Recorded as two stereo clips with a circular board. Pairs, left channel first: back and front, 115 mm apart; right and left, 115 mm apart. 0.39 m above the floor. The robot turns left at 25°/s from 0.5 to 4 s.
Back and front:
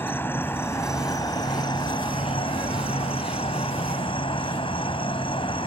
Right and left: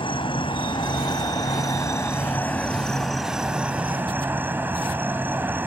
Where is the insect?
115° right; by 5.7 s 160° left.